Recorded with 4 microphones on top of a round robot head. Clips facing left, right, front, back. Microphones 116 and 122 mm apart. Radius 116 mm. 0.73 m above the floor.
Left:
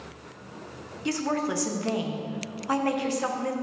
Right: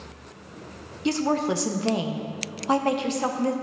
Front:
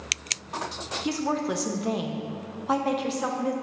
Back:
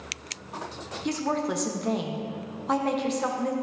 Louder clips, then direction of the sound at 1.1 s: Right 4 dB, even; 85° right.